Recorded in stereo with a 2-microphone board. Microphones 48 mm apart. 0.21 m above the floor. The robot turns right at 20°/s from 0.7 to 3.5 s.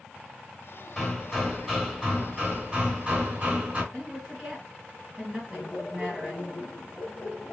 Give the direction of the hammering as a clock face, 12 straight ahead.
6 o'clock.